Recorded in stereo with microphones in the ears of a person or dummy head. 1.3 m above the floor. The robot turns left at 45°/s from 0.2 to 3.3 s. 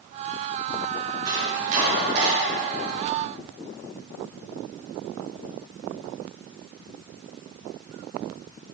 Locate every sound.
1.2 s chopping: 25° right (ahead or behind), 4 m; by 2.3 s 75° right (ahead or behind), 4 m